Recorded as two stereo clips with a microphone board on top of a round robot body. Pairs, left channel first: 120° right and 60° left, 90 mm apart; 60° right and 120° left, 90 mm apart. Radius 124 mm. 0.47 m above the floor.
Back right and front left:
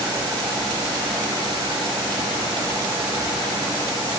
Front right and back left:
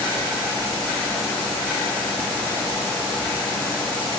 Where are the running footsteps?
No running footsteps in this recording.